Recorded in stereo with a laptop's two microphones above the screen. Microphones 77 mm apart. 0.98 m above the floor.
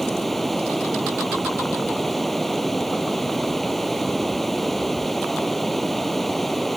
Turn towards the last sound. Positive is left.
turn(degrees=5)  # may be behind; listen again after turning